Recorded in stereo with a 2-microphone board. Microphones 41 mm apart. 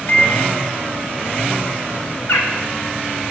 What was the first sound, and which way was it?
A microwave, 45° left (ahead or behind).